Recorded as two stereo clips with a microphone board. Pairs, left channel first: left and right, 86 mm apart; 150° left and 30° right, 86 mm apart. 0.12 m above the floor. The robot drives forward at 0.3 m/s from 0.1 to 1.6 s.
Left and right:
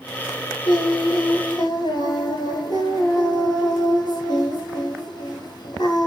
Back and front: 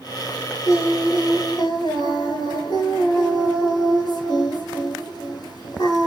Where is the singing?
100° left, 0.8 m; by 6.1 s 120° left, 0.9 m.